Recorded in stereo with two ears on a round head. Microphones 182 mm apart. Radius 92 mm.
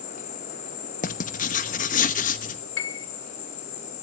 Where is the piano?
60° left (ahead or behind), 1.1 m.